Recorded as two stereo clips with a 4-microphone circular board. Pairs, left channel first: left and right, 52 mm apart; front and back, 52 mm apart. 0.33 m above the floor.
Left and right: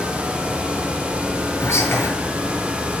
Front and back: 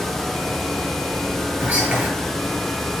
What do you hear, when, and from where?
1.6 s whispering: 120° left, 6.5 m